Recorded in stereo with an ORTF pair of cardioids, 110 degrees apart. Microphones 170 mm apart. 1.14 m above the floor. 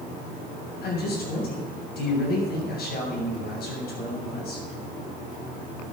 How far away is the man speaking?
About 7.5 m.